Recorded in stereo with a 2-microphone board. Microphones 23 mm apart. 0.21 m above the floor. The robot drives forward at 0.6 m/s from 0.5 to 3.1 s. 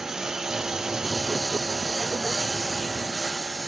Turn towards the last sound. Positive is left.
turn(degrees=-15)  # may be behind; listen again after turning